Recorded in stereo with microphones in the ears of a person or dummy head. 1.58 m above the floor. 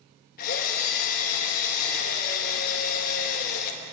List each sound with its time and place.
0.4 s a drill: 50° left (ahead or behind), 2 m